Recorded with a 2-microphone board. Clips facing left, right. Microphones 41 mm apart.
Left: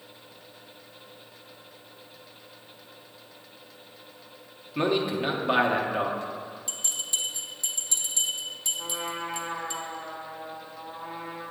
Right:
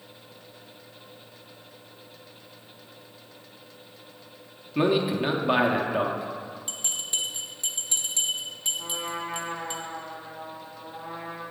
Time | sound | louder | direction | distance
4.8 | a man speaking | right 2 dB | 5° right (ahead or behind) | 0.7 m
6.7 | a bell | right 1 dB | 45° right (ahead or behind) | 1.0 m
8.8 | a trumpet | left 1 dB | 15° left (ahead or behind) | 2.5 m